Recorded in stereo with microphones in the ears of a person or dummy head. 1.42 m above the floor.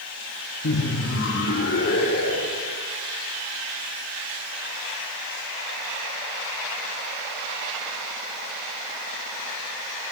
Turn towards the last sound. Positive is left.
turn(degrees=70)  # may be behind; listen again after turning